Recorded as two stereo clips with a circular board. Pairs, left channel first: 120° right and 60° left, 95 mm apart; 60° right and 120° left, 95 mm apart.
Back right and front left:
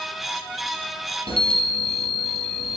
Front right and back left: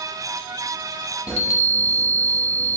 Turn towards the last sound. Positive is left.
turn(degrees=-120)